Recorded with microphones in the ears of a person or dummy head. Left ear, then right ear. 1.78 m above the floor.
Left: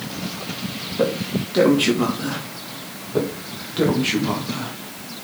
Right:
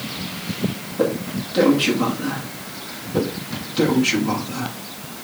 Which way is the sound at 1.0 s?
20° left (ahead or behind).